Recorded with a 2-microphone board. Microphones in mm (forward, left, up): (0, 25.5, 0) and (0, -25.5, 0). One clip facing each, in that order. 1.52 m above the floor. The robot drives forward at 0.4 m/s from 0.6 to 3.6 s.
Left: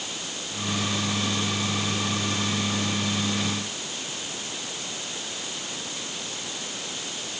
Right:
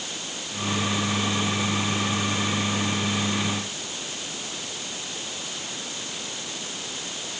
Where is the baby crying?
I don't hear a baby crying.